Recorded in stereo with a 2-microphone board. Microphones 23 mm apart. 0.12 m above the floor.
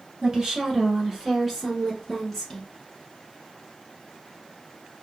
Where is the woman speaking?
30° right (ahead or behind), 1.5 m; by 2.7 s 10° left (ahead or behind), 1.3 m.